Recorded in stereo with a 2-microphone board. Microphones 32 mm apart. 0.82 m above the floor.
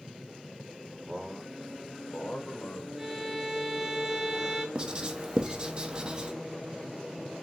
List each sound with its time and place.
1.1 s a man speaking: 10° right (ahead or behind), 0.8 m; by 2.9 s 75° left (ahead or behind), 1.6 m
3.0 s a violin: 10° right (ahead or behind), 1.0 m
4.8 s writing: 25° right (ahead or behind), 0.6 m